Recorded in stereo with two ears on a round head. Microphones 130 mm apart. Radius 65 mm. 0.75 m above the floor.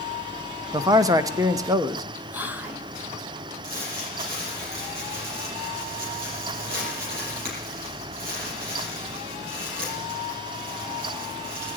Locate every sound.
0.7 s a man speaking: 25° right (ahead or behind), 0.5 m
2.3 s whispering: 15° right (ahead or behind), 0.7 m
3.6 s crumpling: 70° right (ahead or behind), 5 m